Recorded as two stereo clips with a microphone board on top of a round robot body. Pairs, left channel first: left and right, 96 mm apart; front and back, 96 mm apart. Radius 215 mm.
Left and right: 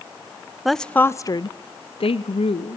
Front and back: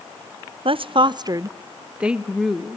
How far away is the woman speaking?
About 0.7 m.